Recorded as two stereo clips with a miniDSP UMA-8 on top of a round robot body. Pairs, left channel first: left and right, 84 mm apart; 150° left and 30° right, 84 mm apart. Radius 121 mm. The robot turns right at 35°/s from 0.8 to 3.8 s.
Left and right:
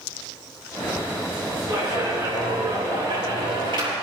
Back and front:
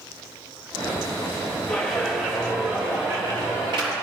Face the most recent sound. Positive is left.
turn(degrees=-60)